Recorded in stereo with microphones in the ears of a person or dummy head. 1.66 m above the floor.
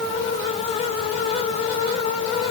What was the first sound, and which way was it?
Only background noise.